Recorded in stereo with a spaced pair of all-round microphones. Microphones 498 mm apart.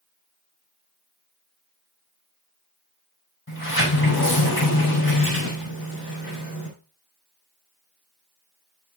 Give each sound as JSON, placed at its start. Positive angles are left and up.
{"t": 3.5, "sound": "a sliding door", "side_deg": 25, "distance_m": 5.0}